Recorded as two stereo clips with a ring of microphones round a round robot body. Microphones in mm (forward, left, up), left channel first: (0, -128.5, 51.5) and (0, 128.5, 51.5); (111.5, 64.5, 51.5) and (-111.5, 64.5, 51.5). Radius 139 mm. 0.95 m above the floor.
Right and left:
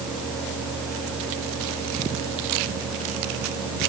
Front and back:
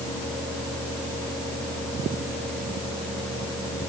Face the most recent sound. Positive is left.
No sound to turn to.